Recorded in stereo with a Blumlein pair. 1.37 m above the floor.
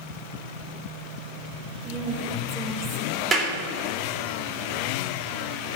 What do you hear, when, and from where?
1.8 s a woman speaking: 20° right, 3.5 m
3.3 s a clap: 20° right, 3.5 m